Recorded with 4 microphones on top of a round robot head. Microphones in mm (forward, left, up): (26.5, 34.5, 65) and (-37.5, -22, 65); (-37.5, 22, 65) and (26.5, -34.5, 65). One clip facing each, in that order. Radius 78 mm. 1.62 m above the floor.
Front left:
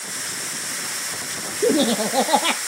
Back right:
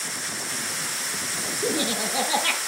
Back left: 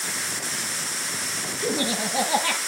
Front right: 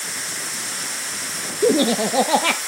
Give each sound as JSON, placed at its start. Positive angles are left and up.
{"t": 1.6, "sound": "laughter", "azimuth_deg": -10, "distance_m": 0.6}